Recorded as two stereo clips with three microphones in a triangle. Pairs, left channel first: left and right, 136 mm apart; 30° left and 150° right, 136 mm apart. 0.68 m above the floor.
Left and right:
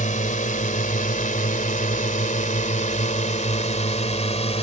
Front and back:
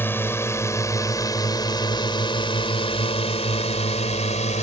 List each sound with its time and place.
0.0 s a drone: 105° left; by 4.6 s 55° left